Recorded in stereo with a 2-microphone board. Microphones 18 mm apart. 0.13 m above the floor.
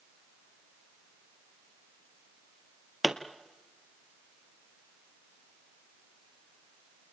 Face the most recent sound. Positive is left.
turn(degrees=-5)  # may be behind; listen again after turning